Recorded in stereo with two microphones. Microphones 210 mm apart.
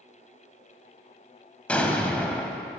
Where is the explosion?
5° left (ahead or behind), 0.5 m.